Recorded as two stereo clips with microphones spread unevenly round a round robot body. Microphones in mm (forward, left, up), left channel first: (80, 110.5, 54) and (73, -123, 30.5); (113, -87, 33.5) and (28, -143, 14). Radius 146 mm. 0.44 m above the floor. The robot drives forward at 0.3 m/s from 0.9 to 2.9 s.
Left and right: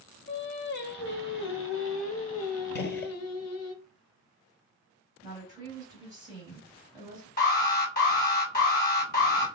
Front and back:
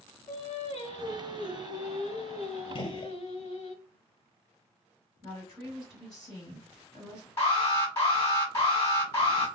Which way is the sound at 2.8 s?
65° left.